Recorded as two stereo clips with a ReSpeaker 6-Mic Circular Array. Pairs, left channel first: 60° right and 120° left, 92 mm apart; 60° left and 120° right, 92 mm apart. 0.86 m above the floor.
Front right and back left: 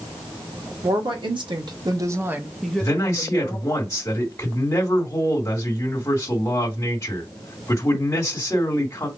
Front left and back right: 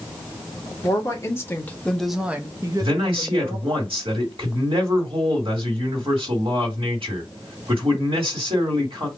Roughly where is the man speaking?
Behind right.